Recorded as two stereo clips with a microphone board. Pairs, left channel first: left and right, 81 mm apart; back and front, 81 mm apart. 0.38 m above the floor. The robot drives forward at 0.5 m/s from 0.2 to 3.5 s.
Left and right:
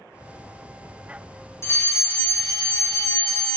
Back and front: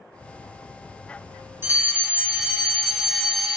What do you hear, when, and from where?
1.6 s a fire alarm: 50° left, 2.5 m; by 3.6 s 85° left, 2 m